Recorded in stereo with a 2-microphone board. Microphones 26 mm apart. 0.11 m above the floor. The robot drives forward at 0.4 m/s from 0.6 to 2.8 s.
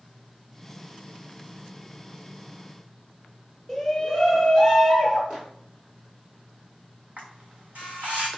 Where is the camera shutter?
60° right (ahead or behind), 1.6 m.